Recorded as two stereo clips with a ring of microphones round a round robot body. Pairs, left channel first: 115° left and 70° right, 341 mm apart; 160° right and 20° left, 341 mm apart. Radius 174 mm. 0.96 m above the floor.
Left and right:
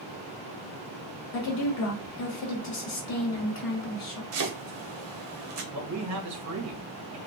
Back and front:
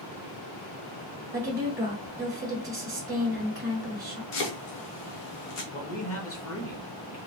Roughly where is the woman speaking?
Left.